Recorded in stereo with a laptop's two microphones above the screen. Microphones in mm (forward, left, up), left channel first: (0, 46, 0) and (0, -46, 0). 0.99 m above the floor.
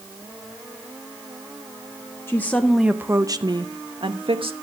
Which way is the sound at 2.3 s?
25° left (ahead or behind).